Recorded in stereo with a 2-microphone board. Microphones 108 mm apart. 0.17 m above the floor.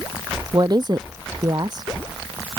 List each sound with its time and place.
0.5 s a woman speaking: 40° right (ahead or behind)